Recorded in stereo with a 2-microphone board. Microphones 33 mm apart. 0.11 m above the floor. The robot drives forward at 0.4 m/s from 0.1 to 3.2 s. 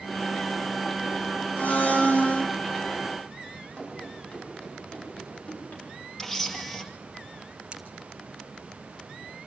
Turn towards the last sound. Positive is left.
turn(degrees=-35)  # may be behind; listen again after turning